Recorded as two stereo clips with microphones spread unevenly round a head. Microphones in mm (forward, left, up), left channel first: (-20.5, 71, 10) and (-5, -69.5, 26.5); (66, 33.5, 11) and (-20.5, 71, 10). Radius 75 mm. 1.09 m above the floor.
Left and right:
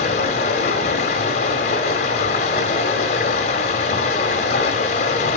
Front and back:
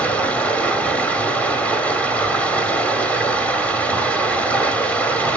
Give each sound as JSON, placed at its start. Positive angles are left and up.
{"t": 0.0, "sound": "running water", "azimuth_deg": 50, "distance_m": 1.7}